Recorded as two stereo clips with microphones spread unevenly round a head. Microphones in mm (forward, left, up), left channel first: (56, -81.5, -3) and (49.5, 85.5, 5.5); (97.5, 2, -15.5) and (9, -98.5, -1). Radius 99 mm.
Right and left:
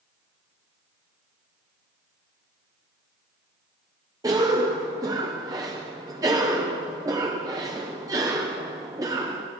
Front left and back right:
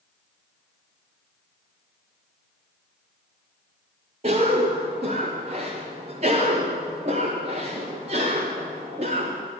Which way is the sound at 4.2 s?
165° left.